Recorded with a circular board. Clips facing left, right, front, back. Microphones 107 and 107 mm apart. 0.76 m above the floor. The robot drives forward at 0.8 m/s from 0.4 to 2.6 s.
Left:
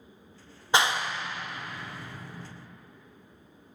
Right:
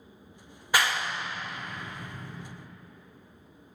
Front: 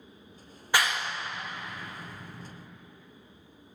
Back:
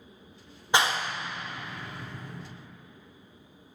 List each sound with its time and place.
0.7 s a clap: 130° left, 0.5 m; by 2.5 s 170° left, 1.7 m